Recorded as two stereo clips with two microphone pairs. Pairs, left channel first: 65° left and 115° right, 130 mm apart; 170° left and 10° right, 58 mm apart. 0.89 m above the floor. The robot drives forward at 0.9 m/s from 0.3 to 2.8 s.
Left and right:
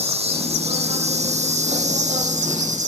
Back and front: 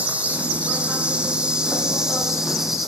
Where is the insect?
75° right, 8.5 m; by 2.9 s 95° right, 8 m.